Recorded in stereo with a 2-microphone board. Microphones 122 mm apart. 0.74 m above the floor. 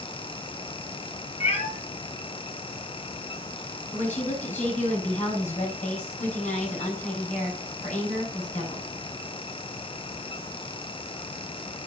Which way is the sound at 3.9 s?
80° left.